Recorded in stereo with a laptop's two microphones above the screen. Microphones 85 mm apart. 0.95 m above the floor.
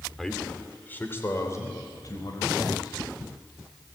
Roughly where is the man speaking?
Centre.